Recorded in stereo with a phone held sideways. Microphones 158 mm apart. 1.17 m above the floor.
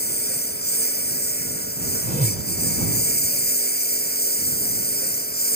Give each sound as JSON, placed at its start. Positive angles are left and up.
{"t": 0.0, "sound": "a lawn mower", "side_deg": 85}
{"t": 2.0, "sound": "a whoosh", "side_deg": -50}